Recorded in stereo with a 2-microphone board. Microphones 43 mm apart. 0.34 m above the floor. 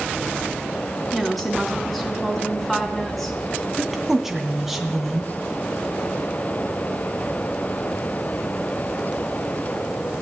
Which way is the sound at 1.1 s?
Centre (ahead or behind).